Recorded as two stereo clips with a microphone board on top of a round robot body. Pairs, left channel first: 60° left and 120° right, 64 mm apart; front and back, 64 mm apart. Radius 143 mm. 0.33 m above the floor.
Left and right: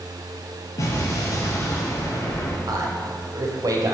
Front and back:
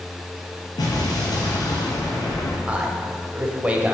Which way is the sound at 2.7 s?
115° right.